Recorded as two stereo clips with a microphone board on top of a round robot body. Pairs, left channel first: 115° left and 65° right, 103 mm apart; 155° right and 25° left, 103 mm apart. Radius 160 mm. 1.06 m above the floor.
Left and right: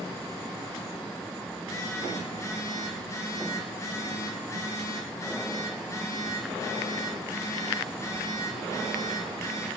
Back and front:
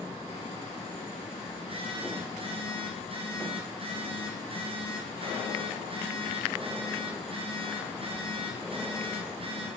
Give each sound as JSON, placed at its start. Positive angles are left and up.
{"t": 1.6, "sound": "a phone buzzing", "azimuth_deg": 50, "distance_m": 2.5}